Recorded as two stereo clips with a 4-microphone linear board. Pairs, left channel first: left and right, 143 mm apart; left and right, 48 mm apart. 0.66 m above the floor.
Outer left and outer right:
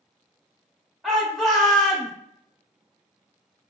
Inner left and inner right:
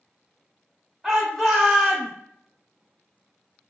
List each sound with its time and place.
1.0 s a shout: centre (ahead or behind), 0.6 m